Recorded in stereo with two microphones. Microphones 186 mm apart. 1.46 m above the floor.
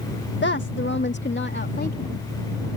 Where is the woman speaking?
80° left; by 2.7 s 60° left (ahead or behind).